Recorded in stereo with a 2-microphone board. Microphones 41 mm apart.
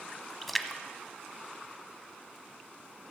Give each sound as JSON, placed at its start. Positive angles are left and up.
{"t": 0.4, "sound": "a splash", "side_deg": 0, "distance_m": 0.8}